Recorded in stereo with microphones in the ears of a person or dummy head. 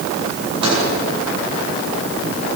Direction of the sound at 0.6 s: 25° right (ahead or behind).